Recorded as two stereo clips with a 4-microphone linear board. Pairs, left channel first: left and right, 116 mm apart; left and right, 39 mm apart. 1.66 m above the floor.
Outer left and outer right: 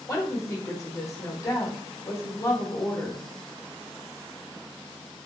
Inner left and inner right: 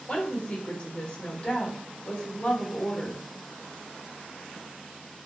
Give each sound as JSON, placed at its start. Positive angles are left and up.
{"t": 0.1, "sound": "a woman speaking", "side_deg": 30, "distance_m": 1.0}